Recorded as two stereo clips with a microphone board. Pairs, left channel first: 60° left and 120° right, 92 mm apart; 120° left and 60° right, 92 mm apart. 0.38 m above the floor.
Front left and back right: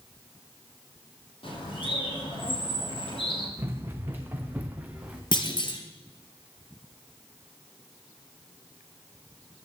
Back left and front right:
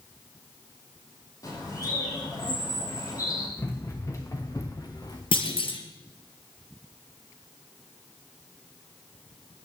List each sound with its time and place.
1.4 s a bird: 70° left, 8.5 m
3.6 s running footsteps: 175° left, 3 m; by 5.2 s 160° left, 2 m
5.3 s a clunk: 95° left, 2 m